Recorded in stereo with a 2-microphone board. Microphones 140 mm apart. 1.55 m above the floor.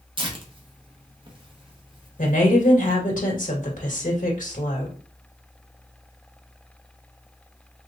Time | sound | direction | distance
0.2 | tearing paper | 35° right (ahead or behind) | 1.0 m
2.2 | a woman speaking | 75° left (ahead or behind) | 1.9 m